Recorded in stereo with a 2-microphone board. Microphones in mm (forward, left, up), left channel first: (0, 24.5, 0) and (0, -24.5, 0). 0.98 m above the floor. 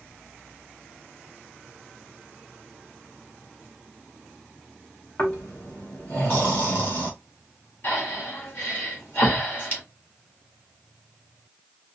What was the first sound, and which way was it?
Snoring, 35° left (ahead or behind).